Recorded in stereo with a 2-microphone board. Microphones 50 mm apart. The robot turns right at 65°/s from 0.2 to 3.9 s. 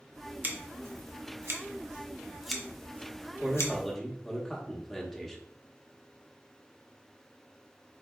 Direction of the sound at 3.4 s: 25° right.